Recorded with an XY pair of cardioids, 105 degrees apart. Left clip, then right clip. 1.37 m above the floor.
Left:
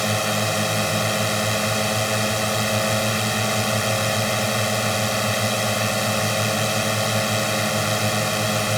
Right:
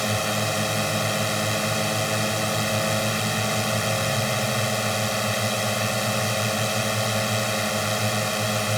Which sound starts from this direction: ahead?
A drone, at 0.0 s.